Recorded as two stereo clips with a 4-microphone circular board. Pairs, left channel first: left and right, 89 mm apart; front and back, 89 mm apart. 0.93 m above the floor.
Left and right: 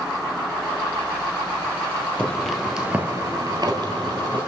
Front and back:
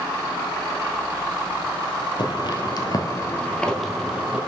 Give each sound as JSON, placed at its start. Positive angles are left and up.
{"t": 2.2, "sound": "footsteps", "azimuth_deg": 15, "distance_m": 1.7}